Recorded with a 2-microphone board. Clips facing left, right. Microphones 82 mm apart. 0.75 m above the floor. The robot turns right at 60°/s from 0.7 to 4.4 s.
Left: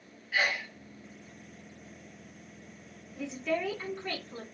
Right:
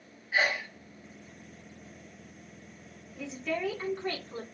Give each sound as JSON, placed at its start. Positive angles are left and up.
{"t": 0.3, "sound": "a sneeze", "side_deg": -20, "distance_m": 1.2}
{"t": 3.2, "sound": "a woman speaking", "azimuth_deg": 160, "distance_m": 1.8}